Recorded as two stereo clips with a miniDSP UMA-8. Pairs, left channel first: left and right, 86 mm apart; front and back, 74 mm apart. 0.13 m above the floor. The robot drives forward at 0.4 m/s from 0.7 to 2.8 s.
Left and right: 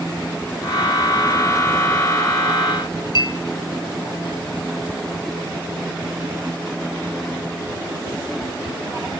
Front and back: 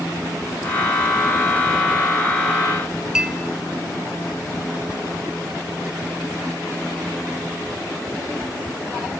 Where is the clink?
100° left, 1.6 m.